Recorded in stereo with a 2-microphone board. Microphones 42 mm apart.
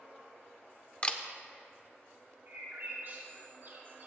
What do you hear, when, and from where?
1.0 s a camera shutter: 30° left (ahead or behind), 0.7 m
2.5 s a bird: 55° right (ahead or behind), 4 m